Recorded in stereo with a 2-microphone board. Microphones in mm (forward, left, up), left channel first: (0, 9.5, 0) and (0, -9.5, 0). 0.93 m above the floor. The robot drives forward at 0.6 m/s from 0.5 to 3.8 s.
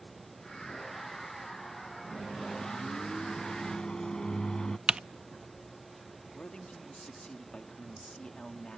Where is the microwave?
30° left (ahead or behind); by 4.8 s 35° left (ahead or behind).